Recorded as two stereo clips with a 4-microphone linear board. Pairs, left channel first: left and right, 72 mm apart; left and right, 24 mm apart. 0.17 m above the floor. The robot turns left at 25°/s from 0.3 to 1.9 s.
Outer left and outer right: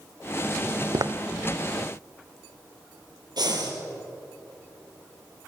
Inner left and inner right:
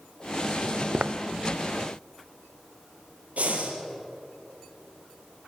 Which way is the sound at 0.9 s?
65° right (ahead or behind).